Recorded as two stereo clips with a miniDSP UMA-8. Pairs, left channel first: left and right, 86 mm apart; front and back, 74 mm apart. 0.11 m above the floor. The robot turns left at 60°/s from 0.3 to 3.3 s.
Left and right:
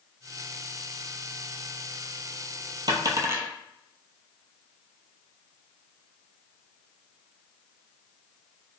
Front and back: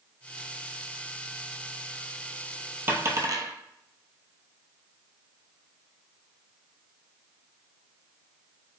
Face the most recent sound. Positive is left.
turn(degrees=-145)